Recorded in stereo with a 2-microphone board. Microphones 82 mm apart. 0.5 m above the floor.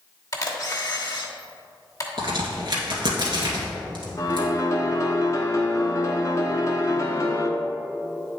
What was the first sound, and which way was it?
A camera shutter, 45° left (ahead or behind).